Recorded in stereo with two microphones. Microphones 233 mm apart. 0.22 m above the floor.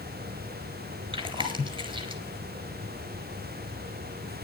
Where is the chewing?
20° right (ahead or behind), 3 m.